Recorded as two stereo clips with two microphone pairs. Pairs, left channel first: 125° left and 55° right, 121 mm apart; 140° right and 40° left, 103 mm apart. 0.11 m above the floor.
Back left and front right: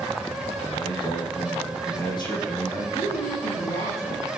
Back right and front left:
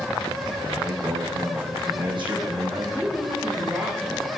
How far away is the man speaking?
About 4 m.